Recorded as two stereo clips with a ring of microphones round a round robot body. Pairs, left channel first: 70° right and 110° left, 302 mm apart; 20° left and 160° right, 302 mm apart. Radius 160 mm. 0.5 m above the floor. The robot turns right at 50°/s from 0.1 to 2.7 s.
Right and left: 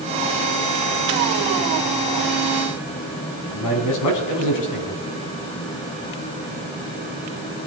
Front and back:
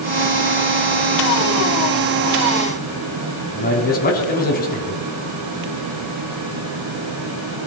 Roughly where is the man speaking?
Ahead right.